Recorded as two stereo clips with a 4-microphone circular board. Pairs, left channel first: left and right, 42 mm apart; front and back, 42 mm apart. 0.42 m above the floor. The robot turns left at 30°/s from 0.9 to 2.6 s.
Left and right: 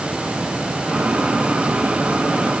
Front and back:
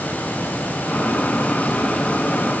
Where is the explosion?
I don't hear an explosion.